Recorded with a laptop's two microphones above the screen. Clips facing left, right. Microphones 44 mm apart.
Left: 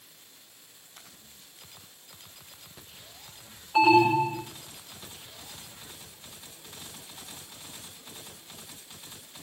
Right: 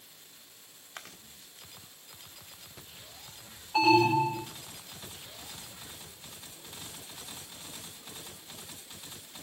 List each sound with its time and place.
0.9 s chewing: 80° right, 1.5 m
3.8 s an alarm: 15° left (ahead or behind), 1.3 m